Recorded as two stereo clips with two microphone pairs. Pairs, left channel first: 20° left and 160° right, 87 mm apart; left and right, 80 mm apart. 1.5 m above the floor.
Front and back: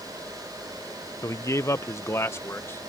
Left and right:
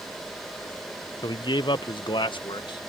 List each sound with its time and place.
1.2 s a man speaking: 70° left; by 2.9 s 80° left